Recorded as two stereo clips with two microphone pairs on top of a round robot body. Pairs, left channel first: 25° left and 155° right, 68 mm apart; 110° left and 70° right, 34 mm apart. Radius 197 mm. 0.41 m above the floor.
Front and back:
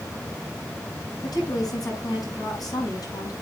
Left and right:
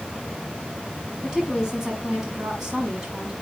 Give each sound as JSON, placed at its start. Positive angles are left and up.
{"t": 1.2, "sound": "a woman speaking", "azimuth_deg": 5, "distance_m": 8.0}